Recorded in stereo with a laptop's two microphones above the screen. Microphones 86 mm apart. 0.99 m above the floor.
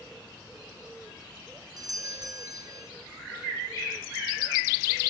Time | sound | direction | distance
1.8 | a doorbell | 45° right (ahead or behind) | 1.1 m